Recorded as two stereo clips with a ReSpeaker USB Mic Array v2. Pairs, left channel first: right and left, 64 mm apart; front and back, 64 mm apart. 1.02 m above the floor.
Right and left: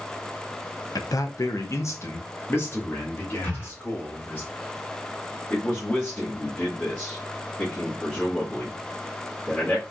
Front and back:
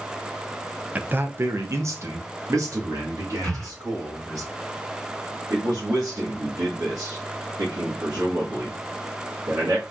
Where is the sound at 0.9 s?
115° right, 0.5 m; by 4.4 s 150° right, 2.5 m.